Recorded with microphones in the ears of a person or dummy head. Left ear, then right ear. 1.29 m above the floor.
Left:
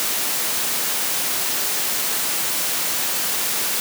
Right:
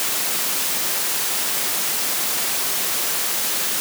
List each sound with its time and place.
Only background noise.